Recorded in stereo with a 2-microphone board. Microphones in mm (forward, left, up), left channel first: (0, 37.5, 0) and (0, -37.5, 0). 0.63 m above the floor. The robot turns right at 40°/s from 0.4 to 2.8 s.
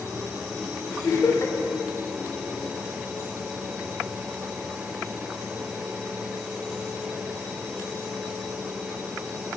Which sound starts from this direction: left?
Laughter, at 1.0 s.